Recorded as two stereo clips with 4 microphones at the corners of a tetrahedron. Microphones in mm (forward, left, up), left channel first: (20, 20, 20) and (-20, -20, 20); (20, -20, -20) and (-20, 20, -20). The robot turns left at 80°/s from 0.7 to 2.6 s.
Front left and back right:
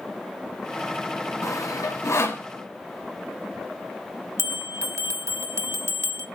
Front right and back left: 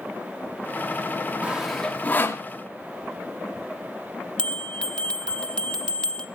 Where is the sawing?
70° left, 1.3 m; by 2.5 s 10° right, 1.3 m.